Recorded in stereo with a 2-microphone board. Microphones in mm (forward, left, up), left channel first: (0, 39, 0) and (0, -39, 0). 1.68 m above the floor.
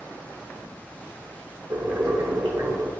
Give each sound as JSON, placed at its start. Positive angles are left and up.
{"t": 1.7, "sound": "boiling", "side_deg": -55, "distance_m": 0.9}